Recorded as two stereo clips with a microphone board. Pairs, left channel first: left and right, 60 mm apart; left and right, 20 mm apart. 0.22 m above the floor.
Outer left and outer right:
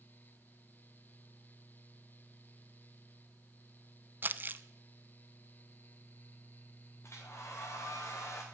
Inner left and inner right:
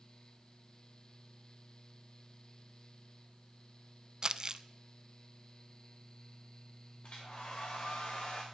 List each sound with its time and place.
4.2 s crumpling: 35° right (ahead or behind), 0.5 m
7.0 s a hair dryer: 50° left (ahead or behind), 3.5 m